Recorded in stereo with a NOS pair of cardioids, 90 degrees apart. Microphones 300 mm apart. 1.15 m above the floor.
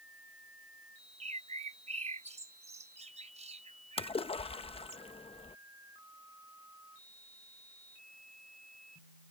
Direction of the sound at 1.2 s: 20° right.